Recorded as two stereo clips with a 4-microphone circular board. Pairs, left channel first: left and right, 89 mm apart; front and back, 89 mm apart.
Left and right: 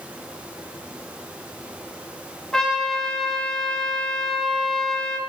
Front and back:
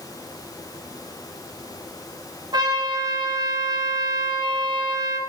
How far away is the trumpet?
About 0.6 m.